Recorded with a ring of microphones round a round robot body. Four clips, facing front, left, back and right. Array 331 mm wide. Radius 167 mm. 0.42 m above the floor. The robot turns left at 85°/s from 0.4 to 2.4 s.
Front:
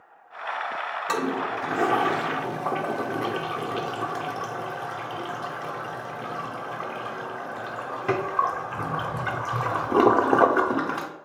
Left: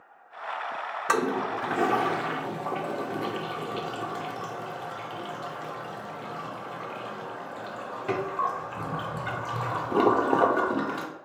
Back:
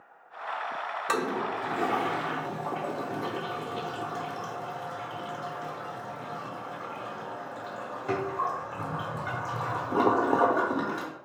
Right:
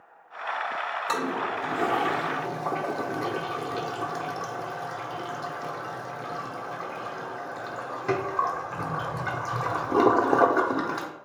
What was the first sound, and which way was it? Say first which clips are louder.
A toilet flushing: left 4 dB, front 2 dB; 95° left.